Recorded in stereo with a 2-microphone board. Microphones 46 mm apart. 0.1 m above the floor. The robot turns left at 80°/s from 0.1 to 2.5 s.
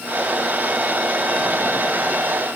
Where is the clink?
I don't hear a clink.